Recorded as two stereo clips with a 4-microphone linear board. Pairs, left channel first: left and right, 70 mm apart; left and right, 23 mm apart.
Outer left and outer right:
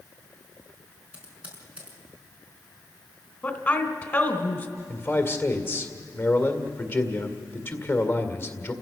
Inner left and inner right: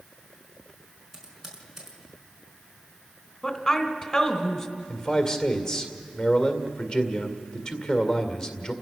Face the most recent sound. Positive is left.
turn(degrees=30)  # may be behind; listen again after turning